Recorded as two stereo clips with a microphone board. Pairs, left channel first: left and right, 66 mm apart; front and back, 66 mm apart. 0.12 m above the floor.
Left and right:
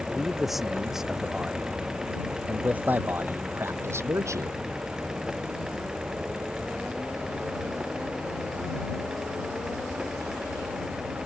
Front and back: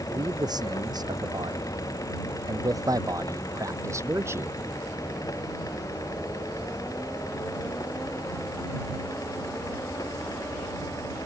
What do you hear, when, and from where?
0.1 s a man speaking: straight behind; by 4.6 s 125° right